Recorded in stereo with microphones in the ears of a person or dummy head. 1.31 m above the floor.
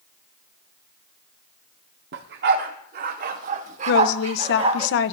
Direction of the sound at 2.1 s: 60° right (ahead or behind).